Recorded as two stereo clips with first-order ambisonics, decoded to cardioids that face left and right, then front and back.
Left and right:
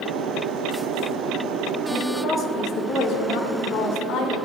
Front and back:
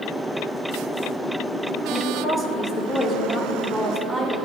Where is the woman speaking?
30° left, 1.6 m; by 4.3 s 80° left, 2.5 m.